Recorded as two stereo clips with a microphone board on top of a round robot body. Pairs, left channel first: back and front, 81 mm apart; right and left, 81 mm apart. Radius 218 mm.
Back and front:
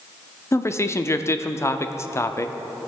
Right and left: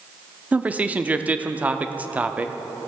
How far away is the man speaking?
About 1.0 m.